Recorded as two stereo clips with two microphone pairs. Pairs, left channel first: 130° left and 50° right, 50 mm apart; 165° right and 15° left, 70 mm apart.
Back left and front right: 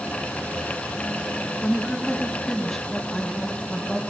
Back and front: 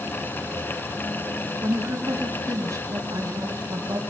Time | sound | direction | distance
1.6 | a woman speaking | 45° left | 3.5 m